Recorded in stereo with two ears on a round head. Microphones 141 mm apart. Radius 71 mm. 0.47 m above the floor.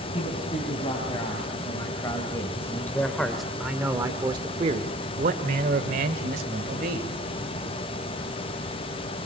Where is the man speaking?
35° left (ahead or behind), 4 m; by 7.1 s 60° right (ahead or behind), 3 m.